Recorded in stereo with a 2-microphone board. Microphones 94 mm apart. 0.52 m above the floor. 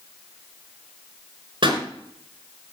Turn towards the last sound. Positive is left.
turn(degrees=-55)  # may be behind; listen again after turning